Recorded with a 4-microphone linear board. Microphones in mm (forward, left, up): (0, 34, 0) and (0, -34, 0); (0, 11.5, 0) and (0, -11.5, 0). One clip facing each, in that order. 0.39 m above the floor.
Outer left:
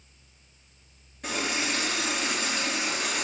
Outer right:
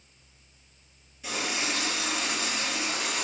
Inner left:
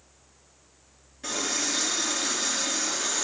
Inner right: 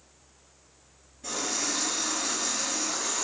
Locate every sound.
1.2 s a running tap: 50° left (ahead or behind), 3 m